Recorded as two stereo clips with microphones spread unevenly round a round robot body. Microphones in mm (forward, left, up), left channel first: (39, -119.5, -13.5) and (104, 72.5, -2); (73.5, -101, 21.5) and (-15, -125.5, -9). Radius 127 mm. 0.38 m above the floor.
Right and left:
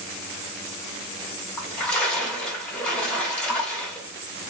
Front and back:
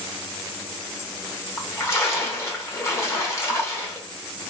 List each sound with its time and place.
1.6 s a splash: 40° right, 1.0 m